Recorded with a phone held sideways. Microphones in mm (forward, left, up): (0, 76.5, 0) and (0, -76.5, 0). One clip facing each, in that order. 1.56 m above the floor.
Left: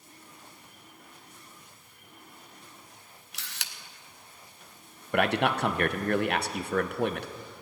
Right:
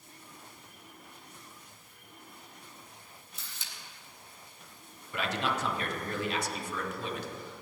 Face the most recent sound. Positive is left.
turn(degrees=60)  # may be behind; listen again after turning